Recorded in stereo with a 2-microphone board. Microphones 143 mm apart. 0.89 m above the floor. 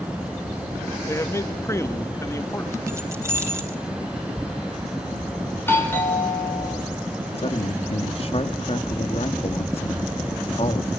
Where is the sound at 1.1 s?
20° left (ahead or behind), 1.5 m.